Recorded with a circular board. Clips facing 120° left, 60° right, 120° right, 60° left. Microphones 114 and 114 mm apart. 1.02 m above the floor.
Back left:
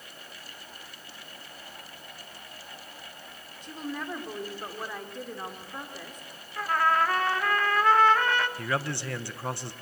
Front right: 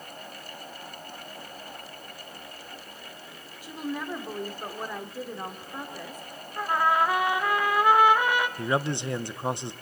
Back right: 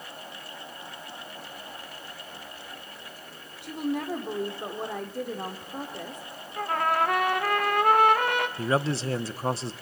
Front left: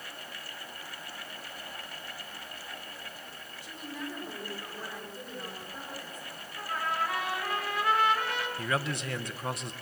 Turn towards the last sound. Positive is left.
turn(degrees=-110)